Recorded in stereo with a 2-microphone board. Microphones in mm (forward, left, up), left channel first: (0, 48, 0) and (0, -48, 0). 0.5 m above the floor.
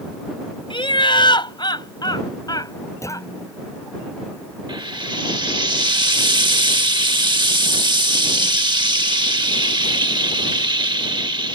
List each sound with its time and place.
0.7 s laughter: 60° left (ahead or behind); by 3.3 s 35° left (ahead or behind)
3.0 s a clunk: 30° left (ahead or behind)
4.7 s frying: 50° right (ahead or behind)